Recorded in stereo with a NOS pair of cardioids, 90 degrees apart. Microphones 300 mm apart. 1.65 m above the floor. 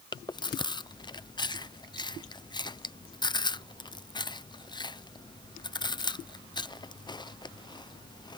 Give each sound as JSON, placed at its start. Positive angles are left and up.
{"t": 0.1, "sound": "chewing", "azimuth_deg": 15}